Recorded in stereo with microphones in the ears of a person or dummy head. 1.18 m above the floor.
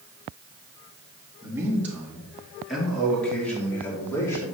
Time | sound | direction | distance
1.4 | a man speaking | 10° right (ahead or behind) | 2.5 m